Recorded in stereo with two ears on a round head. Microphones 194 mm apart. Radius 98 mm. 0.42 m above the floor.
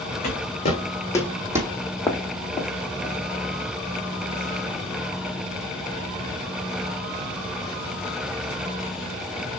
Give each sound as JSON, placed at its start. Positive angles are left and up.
{"t": 0.2, "sound": "footsteps", "side_deg": 45, "distance_m": 2.5}
{"t": 2.1, "sound": "footsteps", "side_deg": 15, "distance_m": 1.0}